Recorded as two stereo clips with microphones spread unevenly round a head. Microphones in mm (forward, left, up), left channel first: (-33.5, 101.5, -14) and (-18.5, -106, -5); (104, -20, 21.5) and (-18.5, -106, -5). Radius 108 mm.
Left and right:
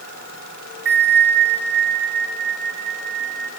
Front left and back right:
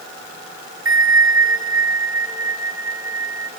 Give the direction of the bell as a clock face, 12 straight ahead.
3 o'clock.